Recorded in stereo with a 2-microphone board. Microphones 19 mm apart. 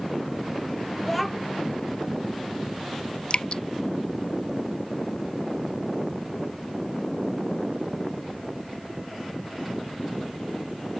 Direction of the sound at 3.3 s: 50° left (ahead or behind).